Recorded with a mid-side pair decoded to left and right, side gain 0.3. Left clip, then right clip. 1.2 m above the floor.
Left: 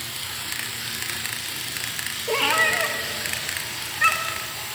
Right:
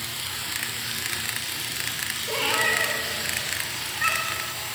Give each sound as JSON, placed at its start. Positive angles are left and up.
{"t": 2.3, "sound": "a cat meowing", "azimuth_deg": 60, "distance_m": 1.4}